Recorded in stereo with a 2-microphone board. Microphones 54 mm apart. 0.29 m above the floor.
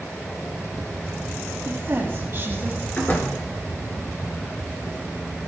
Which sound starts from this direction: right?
A woman speaking, at 1.6 s.